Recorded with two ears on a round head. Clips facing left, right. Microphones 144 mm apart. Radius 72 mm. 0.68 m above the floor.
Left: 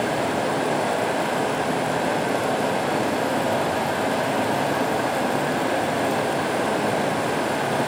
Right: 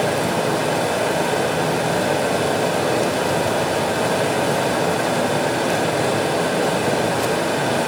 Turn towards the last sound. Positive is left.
turn(degrees=-50)  # may be behind; listen again after turning